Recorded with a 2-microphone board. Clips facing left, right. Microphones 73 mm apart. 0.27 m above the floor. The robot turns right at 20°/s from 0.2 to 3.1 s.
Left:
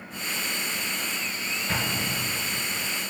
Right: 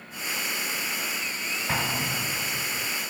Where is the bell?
I don't hear a bell.